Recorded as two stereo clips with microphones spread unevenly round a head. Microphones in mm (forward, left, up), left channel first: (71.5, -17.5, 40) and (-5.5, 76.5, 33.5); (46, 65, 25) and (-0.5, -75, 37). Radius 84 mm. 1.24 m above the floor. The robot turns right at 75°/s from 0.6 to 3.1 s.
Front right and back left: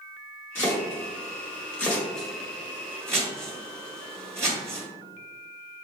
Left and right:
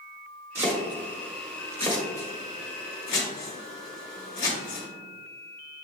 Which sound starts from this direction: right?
Chopping, at 0.6 s.